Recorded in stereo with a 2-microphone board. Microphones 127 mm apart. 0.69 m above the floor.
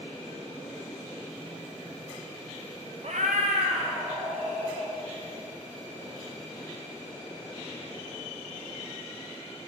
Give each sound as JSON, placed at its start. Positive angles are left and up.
{"t": 3.0, "sound": "a cat meowing", "side_deg": -60, "distance_m": 0.6}